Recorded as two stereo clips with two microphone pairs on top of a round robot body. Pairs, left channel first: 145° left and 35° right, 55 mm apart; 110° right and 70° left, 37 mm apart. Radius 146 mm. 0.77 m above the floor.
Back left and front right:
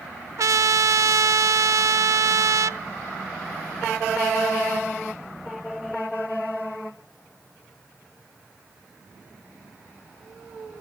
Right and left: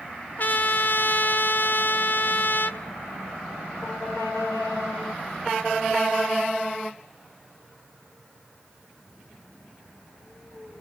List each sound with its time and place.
0.4 s a trumpet: 65° right, 0.7 m